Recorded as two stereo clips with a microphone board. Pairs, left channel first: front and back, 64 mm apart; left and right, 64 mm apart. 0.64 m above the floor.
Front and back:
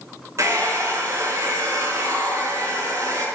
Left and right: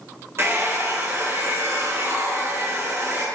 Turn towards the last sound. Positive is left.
turn(degrees=-140)